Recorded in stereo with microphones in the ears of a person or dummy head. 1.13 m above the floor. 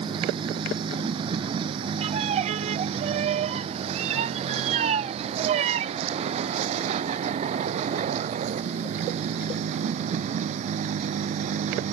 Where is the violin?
40° right (ahead or behind).